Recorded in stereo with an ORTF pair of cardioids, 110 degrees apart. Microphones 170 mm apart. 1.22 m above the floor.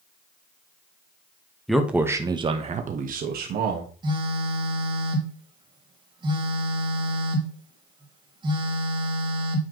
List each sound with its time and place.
1.7 s a man speaking: straight ahead, 1.5 m; by 3.9 s 75° right, 2 m
4.0 s a phone buzzing: 30° right, 2.5 m